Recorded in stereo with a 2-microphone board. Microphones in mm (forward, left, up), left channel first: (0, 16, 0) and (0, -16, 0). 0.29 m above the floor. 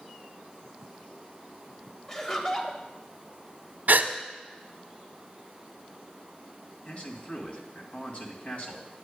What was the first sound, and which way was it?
Laughter, 15° left (ahead or behind).